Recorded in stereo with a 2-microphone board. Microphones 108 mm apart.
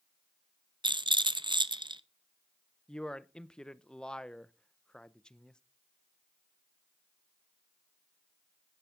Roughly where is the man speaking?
Centre.